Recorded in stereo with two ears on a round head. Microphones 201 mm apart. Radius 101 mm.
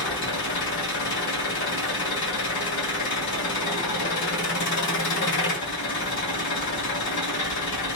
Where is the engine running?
55° left (ahead or behind), 1.7 m.